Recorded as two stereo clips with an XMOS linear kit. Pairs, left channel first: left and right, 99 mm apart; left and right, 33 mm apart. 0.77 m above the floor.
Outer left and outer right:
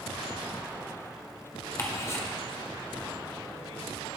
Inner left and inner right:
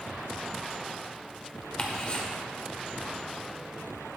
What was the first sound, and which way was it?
Ticking, 30° left (ahead or behind).